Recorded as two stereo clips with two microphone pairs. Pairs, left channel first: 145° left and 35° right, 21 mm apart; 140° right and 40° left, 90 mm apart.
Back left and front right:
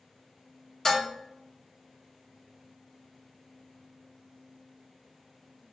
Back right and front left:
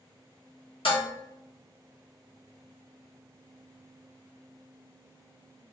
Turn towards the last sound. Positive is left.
turn(degrees=-150)